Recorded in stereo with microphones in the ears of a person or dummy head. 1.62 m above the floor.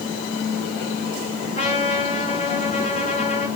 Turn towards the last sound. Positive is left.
turn(degrees=40)  # may be behind; listen again after turning